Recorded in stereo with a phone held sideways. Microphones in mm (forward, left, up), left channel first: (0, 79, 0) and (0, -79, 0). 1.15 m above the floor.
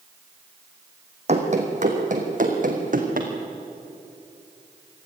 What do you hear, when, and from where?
1.3 s running footsteps: 50° right (ahead or behind), 3 m; by 3.3 s 65° right (ahead or behind), 3.5 m